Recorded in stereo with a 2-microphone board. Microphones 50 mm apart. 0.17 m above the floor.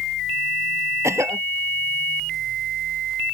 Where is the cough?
65° right (ahead or behind).